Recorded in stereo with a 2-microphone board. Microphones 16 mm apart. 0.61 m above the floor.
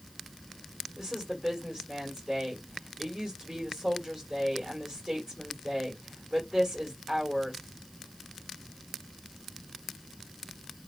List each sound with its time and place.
1.0 s a woman speaking: 40° right (ahead or behind), 1.4 m